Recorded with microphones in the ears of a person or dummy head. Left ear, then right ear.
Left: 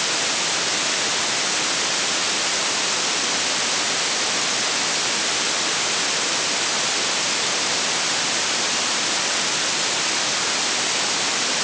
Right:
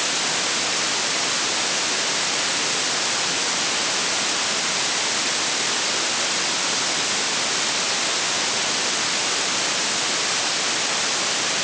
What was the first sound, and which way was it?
Only background noise.